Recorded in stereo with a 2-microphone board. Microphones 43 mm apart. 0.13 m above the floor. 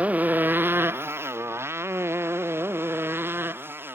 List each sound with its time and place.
0.0 s a motorcycle: 35° right (ahead or behind); by 4.0 s 60° right (ahead or behind)